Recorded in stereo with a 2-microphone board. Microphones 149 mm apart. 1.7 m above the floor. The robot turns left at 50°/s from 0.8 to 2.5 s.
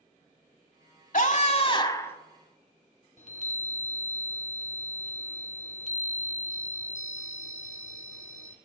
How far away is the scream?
About 1.2 m.